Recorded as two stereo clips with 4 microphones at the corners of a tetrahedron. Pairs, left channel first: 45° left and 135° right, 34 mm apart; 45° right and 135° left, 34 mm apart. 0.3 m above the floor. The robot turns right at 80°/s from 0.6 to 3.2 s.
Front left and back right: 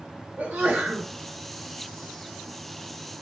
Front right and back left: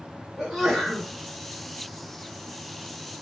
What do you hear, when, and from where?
0.4 s a sneeze: 145° right, 1.5 m; by 1.1 s 105° right, 1.5 m